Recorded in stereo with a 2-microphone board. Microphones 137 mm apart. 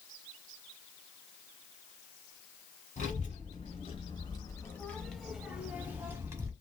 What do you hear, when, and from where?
3.0 s a child speaking: 50° left (ahead or behind), 1.0 m; by 6.5 s 20° right (ahead or behind), 1.3 m